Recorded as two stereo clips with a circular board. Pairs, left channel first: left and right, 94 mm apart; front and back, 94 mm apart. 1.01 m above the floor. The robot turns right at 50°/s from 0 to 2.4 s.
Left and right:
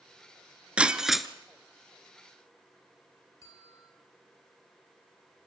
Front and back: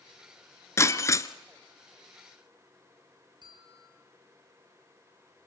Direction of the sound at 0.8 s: 25° right.